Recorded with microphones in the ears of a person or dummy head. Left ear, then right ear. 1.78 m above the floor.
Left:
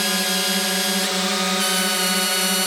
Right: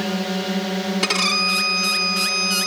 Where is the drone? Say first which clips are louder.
Left 4 dB; 50° left (ahead or behind); by 2.7 s 55° left (ahead or behind).